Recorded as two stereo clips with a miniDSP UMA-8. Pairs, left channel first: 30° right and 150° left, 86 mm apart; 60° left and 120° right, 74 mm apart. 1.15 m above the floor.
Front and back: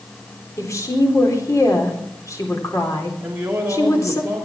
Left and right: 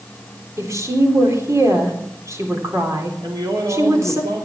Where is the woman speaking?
75° right, 4 m.